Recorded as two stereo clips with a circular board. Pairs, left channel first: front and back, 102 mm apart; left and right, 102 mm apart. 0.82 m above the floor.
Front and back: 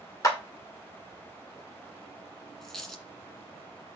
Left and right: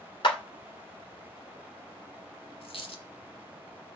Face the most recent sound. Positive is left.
turn(degrees=85)